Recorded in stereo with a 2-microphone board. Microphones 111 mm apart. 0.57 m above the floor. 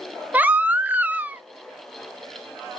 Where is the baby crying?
15° right (ahead or behind), 0.5 m.